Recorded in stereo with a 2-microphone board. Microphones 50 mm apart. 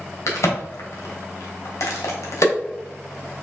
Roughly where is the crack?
Left.